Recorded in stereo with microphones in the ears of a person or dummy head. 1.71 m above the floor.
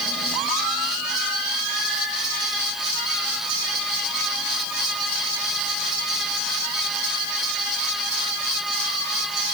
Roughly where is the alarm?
I don't hear an alarm.